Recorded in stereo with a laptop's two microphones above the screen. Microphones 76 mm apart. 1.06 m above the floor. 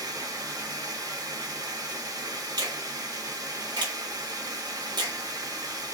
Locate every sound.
0.0 s running water: 65° right (ahead or behind), 0.9 m
2.6 s a finger snap: 85° right, 1.2 m